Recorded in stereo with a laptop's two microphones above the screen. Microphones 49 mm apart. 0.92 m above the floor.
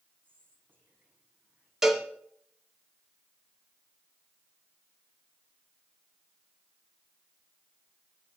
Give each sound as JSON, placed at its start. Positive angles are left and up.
{"t": 0.2, "sound": "whispering", "side_deg": -45, "distance_m": 9.5}
{"t": 1.8, "sound": "a cowbell", "side_deg": -5, "distance_m": 1.6}